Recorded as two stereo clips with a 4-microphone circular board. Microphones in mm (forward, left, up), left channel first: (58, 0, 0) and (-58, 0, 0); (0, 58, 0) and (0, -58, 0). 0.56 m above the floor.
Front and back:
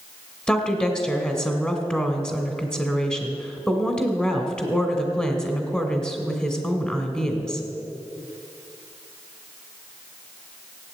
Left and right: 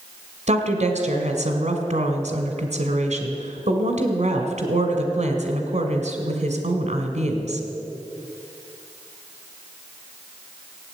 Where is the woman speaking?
80° right, 2 m.